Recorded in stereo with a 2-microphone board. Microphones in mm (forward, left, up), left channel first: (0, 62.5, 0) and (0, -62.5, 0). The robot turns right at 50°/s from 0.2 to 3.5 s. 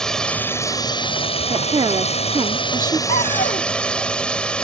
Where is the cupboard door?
70° left (ahead or behind); by 3.7 s 90° left.